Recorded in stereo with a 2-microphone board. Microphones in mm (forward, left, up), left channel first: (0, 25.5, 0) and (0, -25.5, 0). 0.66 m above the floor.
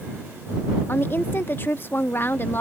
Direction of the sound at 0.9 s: 45° left (ahead or behind).